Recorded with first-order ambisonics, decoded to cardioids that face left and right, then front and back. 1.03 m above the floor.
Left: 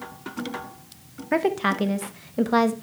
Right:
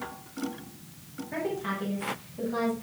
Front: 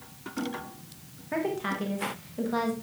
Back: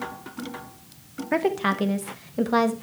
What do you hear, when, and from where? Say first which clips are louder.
1.3 s a woman speaking: left 10 dB, back 7 dB; 125° left, 1.2 m